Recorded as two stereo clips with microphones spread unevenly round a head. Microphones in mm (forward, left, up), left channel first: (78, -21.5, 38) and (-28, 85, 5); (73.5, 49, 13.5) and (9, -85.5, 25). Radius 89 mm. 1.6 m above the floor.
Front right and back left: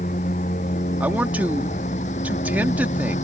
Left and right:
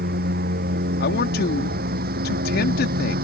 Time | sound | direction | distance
0.0 | a lawn mower | 100° right | ?
1.0 | a man speaking | 55° left | ?